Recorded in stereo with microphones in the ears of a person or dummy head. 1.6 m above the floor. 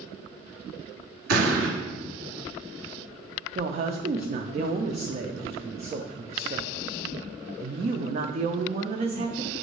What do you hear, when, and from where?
1.3 s an explosion: 70° right (ahead or behind), 1.8 m
3.5 s a woman speaking: 30° right (ahead or behind), 0.5 m